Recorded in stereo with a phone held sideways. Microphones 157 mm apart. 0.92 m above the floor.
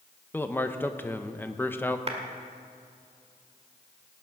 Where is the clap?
40° right (ahead or behind), 2.0 m.